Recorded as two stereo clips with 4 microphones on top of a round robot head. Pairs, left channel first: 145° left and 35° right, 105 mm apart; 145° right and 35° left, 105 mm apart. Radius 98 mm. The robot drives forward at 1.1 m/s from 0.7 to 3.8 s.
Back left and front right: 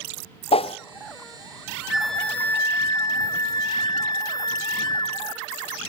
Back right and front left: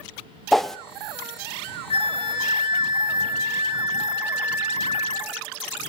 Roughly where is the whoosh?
Behind left.